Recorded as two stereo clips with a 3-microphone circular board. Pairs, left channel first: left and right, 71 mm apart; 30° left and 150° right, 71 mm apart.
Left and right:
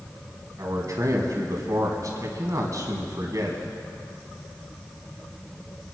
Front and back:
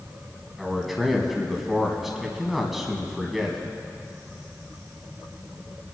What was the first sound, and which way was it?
A man speaking, 65° right.